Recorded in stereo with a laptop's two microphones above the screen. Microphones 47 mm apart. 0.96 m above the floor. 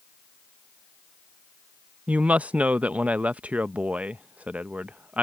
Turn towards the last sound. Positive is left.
turn(degrees=-30)  # may be behind; listen again after turning